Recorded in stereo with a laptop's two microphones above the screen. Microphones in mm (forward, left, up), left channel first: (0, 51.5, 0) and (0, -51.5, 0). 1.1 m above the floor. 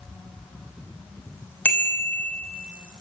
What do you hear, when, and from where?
1.6 s a bicycle bell: 15° left (ahead or behind), 3 m